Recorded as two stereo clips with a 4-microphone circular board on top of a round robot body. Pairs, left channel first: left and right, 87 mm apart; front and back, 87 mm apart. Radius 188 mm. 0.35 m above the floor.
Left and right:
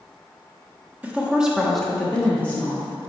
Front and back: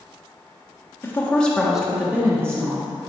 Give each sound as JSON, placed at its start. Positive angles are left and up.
{"t": 1.0, "sound": "a woman speaking", "azimuth_deg": -35, "distance_m": 1.4}